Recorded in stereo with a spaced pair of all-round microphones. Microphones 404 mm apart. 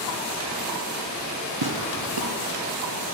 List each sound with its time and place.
1.6 s tearing paper: 65° right (ahead or behind), 0.8 m